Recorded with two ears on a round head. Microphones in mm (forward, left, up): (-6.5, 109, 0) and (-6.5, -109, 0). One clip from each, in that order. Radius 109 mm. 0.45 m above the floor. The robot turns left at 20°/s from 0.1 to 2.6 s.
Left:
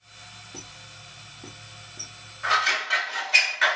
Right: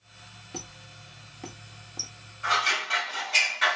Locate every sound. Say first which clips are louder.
0.5 s a squeak: right 4 dB; 20° right (ahead or behind), 0.9 m; by 2.1 s 30° right (ahead or behind), 0.9 m
2.4 s scissors: left 2 dB; 15° left (ahead or behind), 2.5 m; by 3.8 s 10° left (ahead or behind), 2.5 m